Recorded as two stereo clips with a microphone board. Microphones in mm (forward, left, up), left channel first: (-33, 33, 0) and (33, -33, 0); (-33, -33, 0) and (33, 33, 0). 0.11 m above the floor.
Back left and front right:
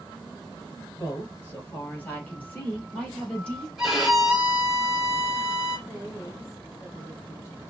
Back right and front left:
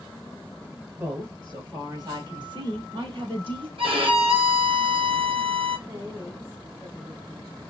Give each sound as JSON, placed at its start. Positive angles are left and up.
{"t": 1.0, "sound": "a woman speaking", "azimuth_deg": 90, "distance_m": 2.0}
{"t": 3.8, "sound": "a violin", "azimuth_deg": 40, "distance_m": 1.5}
{"t": 5.9, "sound": "a woman speaking", "azimuth_deg": 85, "distance_m": 2.0}